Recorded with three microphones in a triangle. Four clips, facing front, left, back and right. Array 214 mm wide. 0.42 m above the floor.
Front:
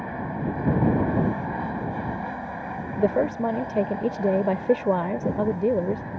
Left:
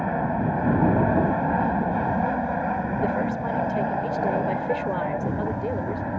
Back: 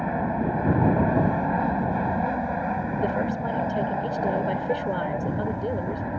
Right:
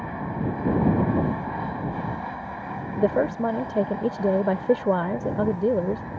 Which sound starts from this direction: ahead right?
A woman speaking, at 3.0 s.